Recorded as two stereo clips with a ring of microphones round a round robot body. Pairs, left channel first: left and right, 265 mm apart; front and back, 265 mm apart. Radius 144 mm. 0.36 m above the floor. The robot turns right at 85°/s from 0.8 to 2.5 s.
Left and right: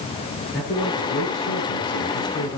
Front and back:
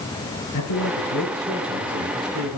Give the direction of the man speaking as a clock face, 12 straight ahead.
11 o'clock.